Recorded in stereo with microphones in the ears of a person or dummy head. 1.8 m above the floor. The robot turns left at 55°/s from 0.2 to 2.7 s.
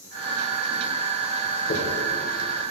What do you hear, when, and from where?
1.7 s a dropped coin: 45° left (ahead or behind), 4 m; by 1.8 s 50° left (ahead or behind), 4 m